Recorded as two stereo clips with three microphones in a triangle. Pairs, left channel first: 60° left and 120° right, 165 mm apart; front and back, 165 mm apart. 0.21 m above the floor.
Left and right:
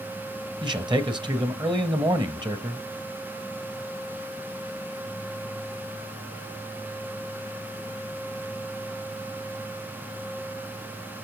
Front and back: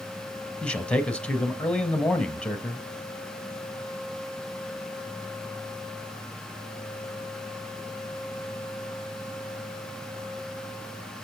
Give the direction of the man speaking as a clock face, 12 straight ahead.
3 o'clock.